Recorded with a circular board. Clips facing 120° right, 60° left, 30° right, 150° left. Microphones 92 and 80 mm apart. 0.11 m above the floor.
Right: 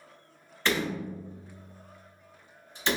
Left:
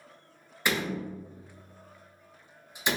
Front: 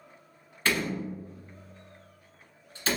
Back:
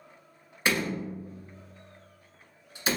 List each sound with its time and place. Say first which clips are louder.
0.7 s a door slam: right 1 dB, even; 115° left, 0.9 m